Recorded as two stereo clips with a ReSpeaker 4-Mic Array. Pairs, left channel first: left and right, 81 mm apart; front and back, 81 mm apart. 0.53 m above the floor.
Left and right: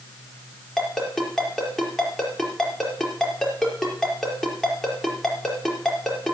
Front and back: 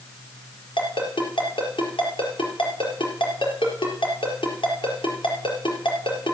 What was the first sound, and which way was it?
A ringtone, straight ahead.